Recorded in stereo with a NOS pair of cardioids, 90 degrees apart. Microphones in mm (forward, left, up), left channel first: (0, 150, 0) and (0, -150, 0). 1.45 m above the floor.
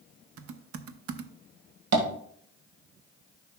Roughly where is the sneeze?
I don't hear a sneeze.